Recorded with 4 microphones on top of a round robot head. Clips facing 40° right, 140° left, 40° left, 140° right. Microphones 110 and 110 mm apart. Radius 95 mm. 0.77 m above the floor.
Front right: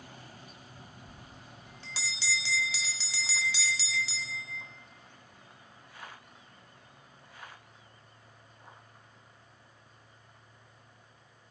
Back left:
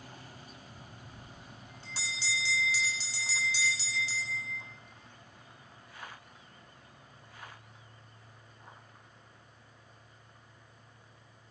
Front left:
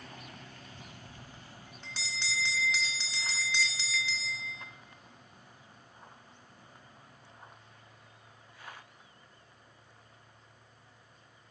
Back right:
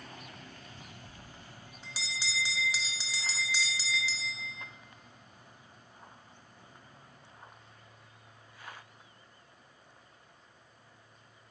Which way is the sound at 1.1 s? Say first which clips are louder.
Even, even; 55° right.